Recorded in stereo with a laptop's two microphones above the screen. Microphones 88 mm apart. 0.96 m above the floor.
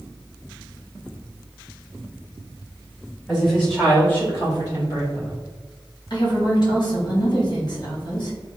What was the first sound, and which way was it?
A woman speaking, centre (ahead or behind).